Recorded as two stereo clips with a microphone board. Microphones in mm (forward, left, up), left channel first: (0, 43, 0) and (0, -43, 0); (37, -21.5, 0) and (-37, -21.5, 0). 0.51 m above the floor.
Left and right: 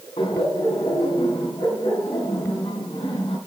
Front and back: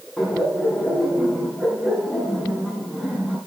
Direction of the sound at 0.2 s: 95° left.